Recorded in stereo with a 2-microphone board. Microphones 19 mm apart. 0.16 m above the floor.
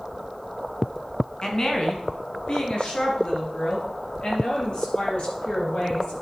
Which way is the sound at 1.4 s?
25° left (ahead or behind).